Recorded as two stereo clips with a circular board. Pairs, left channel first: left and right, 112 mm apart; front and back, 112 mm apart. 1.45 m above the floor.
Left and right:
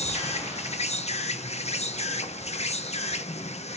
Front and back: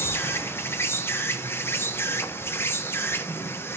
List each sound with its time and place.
0.0 s an insect: 70° left, 1.0 m